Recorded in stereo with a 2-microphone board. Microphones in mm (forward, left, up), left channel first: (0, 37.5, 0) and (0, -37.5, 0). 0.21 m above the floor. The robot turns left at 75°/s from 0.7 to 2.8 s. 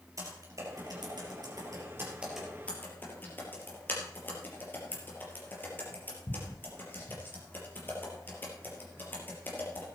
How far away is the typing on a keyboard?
About 4.5 m.